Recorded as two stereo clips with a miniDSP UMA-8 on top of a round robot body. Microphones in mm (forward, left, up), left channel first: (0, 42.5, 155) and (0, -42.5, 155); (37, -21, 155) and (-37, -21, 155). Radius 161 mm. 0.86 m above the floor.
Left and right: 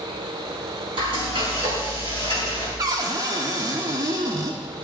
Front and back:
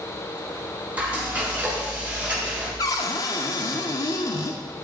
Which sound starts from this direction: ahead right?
A cupboard door, at 2.8 s.